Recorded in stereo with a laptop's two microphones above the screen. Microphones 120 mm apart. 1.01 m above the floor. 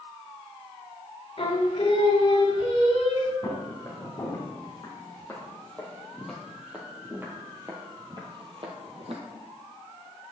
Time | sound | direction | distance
1.4 | singing | 55° left (ahead or behind) | 1.5 m
3.4 | footsteps | 30° left (ahead or behind) | 3 m